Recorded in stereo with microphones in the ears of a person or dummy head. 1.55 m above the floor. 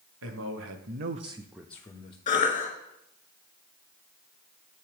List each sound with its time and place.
0.2 s a man speaking: 80° right, 1.2 m; by 2.2 s 35° left (ahead or behind), 0.9 m
2.3 s a cough: 30° left (ahead or behind), 1.7 m